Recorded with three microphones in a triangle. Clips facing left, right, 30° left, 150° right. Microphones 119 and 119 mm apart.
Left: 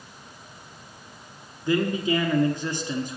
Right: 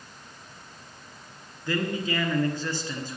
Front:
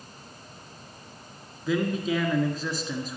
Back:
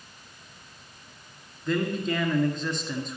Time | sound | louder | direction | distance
1.7 | a man speaking | left 5 dB, front 1 dB | 105° left | 1.2 m